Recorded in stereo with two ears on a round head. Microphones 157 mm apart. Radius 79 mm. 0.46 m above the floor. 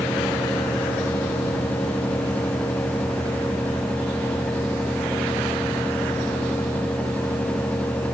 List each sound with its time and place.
Only background noise.